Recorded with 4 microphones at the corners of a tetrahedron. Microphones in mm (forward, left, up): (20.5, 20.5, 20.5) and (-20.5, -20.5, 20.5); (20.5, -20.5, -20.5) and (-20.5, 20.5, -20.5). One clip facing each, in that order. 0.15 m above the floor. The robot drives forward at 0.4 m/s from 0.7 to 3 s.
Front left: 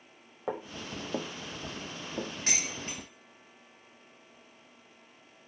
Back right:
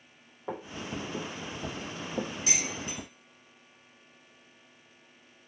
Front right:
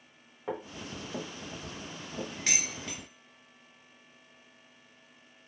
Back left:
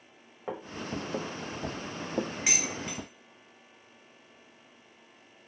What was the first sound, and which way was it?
Footsteps, 55° left.